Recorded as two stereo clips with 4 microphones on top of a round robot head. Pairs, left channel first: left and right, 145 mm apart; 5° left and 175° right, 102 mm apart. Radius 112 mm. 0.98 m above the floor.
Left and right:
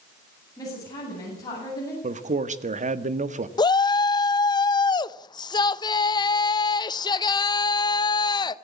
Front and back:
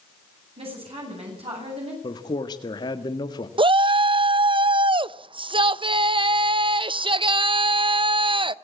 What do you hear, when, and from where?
0.6 s a woman speaking: 160° left, 9.5 m
2.0 s a man speaking: 55° right, 1.7 m
3.6 s a shout: 150° left, 0.9 m